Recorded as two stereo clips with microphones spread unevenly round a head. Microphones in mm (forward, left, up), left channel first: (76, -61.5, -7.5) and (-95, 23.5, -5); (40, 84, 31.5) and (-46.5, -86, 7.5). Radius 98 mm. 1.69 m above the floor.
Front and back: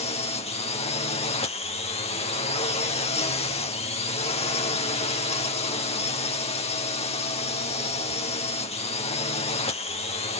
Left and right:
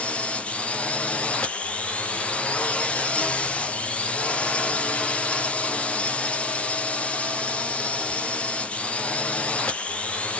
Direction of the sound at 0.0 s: 30° right.